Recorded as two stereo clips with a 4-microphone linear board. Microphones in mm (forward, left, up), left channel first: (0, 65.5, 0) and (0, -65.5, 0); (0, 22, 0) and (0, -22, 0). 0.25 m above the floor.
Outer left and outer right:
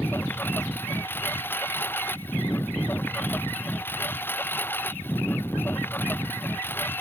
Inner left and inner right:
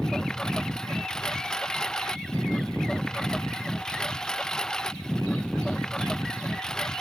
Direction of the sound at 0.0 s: 15° left (ahead or behind).